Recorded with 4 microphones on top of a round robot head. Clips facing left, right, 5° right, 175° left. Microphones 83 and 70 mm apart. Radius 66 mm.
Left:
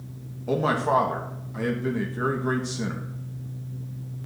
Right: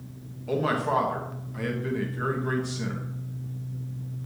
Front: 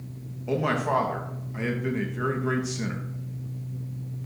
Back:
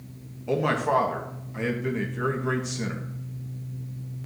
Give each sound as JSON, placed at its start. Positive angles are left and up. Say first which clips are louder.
{"t": 0.5, "sound": "a man speaking", "louder": "left 3 dB, back 1 dB", "azimuth_deg": 80, "distance_m": 1.0}